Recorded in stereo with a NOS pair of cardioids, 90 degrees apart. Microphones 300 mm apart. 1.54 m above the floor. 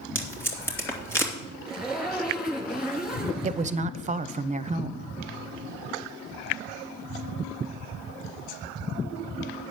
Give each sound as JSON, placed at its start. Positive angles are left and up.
{"t": 0.1, "sound": "tape being pulled", "azimuth_deg": 10, "distance_m": 3.0}
{"t": 1.7, "sound": "a zipper", "azimuth_deg": 0, "distance_m": 1.7}
{"t": 3.4, "sound": "a woman speaking", "azimuth_deg": -25, "distance_m": 0.6}